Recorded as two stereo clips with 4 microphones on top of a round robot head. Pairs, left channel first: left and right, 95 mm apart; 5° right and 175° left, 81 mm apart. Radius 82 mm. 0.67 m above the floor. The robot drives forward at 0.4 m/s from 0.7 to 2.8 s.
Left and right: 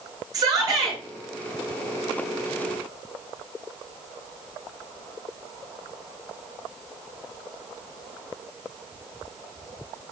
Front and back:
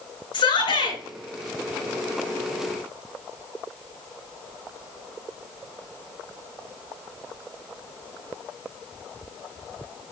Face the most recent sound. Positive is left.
turn(degrees=-35)